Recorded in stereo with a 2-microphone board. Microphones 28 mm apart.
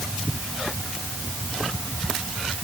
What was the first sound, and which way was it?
Only background noise.